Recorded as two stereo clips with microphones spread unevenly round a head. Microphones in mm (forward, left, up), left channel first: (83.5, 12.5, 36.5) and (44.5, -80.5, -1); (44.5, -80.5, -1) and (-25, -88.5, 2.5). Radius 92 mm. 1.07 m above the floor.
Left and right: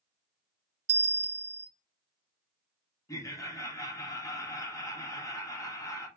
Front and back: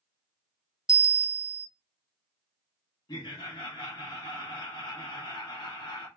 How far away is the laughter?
About 1.5 m.